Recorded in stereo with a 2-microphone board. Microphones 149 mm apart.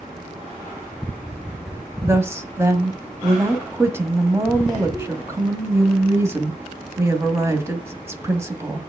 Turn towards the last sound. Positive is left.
turn(degrees=-20)  # may be behind; listen again after turning